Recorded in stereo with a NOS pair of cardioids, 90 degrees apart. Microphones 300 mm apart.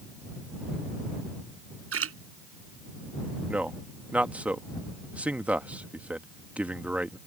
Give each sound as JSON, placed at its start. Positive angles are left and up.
{"t": 1.9, "sound": "a splash", "azimuth_deg": -50}
{"t": 3.5, "sound": "a man speaking", "azimuth_deg": -5}